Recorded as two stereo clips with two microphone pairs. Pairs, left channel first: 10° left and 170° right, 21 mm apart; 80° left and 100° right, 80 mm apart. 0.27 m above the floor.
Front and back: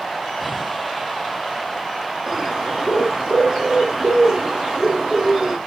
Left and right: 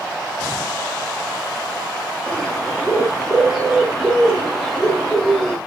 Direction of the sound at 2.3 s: 165° left.